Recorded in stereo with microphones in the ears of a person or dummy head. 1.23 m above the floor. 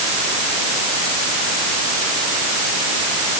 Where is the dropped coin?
I don't hear a dropped coin.